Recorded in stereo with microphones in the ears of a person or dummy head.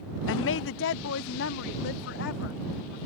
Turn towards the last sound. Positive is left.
turn(degrees=70)  # may be behind; listen again after turning